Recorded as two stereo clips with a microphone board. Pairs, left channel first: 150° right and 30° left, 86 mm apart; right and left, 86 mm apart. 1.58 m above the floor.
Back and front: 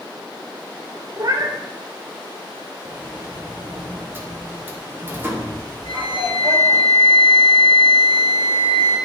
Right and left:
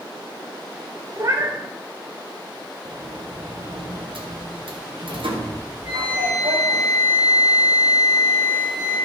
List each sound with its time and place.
1.2 s a cat meowing: 50° left, 1.0 m
2.9 s a sliding door: 95° left, 1.5 m
5.8 s a flute: 10° left, 4 m